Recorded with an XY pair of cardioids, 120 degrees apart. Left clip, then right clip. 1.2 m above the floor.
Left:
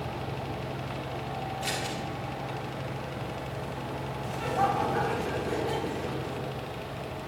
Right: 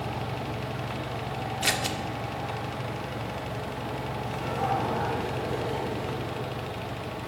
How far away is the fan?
About 1.1 m.